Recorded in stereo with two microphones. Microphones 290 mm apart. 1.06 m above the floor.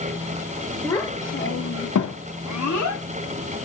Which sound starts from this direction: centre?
A child speaking, at 0.8 s.